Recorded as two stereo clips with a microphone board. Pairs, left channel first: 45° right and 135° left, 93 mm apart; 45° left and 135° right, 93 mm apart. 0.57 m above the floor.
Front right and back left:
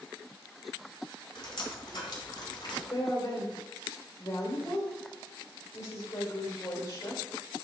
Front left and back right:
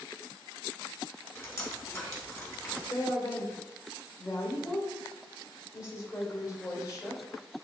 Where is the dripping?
10° right, 3 m.